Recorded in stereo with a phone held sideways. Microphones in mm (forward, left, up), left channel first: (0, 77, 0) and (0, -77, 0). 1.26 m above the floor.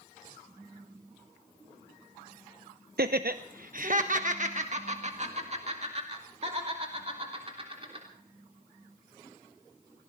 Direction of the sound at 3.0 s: 80° right.